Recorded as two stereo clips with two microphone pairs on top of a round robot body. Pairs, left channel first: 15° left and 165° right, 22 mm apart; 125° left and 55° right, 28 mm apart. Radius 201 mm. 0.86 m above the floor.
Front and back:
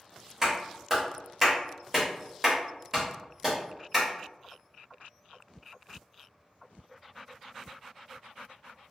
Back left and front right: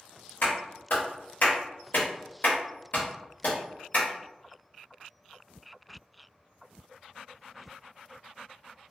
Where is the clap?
125° left, 1.6 m.